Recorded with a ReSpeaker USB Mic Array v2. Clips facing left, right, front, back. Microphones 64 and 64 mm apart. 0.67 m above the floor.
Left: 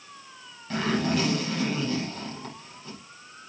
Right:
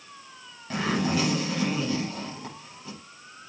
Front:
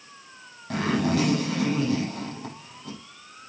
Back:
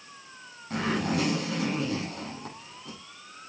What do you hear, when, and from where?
0.7 s a zipper: 15° right, 9.5 m